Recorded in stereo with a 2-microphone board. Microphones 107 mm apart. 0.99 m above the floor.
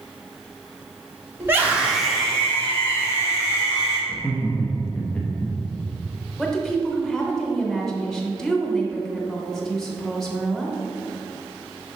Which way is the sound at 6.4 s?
5° left (ahead or behind).